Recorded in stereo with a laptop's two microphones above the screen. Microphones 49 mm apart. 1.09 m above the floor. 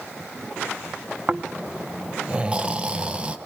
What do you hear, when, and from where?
1.3 s snoring: 20° right (ahead or behind), 0.7 m